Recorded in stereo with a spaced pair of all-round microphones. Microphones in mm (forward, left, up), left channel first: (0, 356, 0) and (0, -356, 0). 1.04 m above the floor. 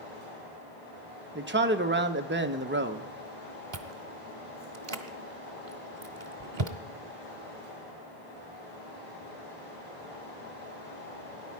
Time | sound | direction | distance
0.0 | a fan | 15° right (ahead or behind) | 8 m
1.4 | a man speaking | 15° right (ahead or behind) | 0.7 m
3.7 | chewing | 40° right (ahead or behind) | 0.9 m